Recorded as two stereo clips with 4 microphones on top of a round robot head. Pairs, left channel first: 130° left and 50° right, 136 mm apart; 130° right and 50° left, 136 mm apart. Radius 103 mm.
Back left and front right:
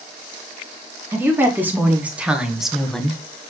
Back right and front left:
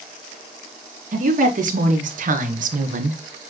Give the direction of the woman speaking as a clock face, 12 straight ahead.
11 o'clock.